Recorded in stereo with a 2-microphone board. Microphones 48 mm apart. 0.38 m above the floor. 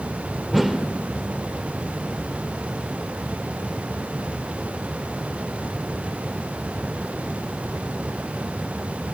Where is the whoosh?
Centre (ahead or behind), 1.4 m.